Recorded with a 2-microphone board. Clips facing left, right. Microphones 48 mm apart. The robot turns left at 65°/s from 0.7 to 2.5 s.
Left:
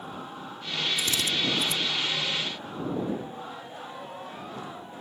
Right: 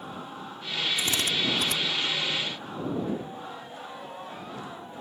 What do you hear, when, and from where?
1.0 s a drill: 30° right (ahead or behind); by 1.8 s 80° right